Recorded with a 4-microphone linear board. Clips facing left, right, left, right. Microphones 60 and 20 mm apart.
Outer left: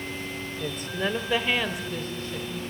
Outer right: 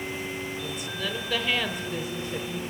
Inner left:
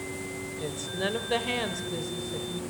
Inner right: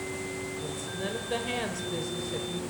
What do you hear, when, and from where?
0.6 s a woman speaking: 45° left (ahead or behind), 1.4 m; by 2.6 s 25° right (ahead or behind), 1.5 m